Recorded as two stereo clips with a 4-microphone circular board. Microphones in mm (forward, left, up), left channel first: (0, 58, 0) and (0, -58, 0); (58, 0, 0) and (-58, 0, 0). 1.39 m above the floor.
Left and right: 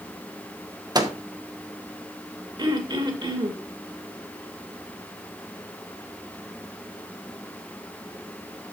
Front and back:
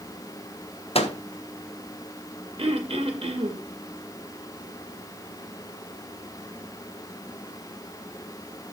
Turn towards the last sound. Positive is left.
turn(degrees=-140)